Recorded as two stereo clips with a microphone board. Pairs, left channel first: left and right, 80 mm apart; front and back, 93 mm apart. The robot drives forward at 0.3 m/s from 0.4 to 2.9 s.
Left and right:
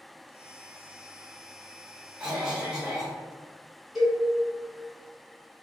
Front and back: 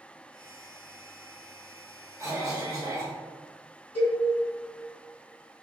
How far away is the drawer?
No drawer in this recording.